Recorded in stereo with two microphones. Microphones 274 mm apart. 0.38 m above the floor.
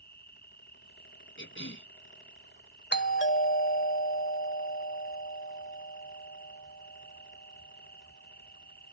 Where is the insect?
35° left (ahead or behind).